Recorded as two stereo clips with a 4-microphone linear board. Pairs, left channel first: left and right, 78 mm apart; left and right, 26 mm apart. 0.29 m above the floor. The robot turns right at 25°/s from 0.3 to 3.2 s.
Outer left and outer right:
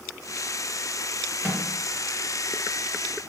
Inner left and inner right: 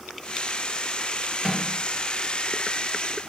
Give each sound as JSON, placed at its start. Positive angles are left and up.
{"t": 1.4, "sound": "a microwave", "side_deg": -25, "distance_m": 0.9}